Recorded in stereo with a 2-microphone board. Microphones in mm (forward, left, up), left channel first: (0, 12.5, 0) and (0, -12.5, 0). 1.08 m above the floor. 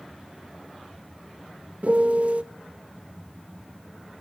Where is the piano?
65° right (ahead or behind), 1.0 m.